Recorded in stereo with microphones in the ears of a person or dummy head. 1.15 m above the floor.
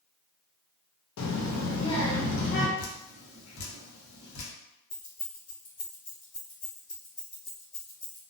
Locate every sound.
1.2 s a child speaking: 80° left, 0.6 m; by 2.7 s 65° left (ahead or behind), 1.3 m
2.8 s dripping: 85° left, 1.0 m
4.9 s keys jangling: 70° left (ahead or behind), 1.1 m